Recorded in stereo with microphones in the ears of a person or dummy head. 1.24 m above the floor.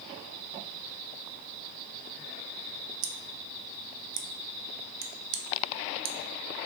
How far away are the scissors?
About 0.6 m.